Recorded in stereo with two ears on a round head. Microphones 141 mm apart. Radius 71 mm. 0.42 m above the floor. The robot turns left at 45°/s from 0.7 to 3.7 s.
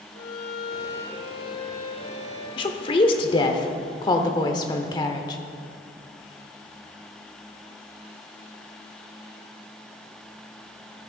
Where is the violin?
95° left, 4.5 m; by 2.5 s 15° left, 4.5 m.